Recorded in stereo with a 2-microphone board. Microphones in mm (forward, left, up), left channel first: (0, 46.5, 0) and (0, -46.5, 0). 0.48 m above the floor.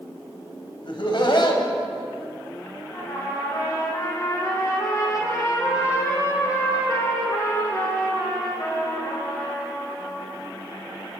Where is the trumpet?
35° left (ahead or behind), 4.5 m.